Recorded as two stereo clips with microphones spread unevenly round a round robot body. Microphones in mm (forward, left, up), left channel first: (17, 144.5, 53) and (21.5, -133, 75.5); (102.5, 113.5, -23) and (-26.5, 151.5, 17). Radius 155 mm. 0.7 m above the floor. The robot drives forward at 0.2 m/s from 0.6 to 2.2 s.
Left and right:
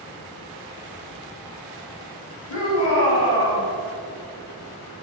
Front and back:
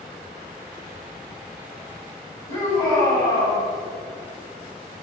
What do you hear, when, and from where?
2.5 s a shout: 135° left, 5.5 m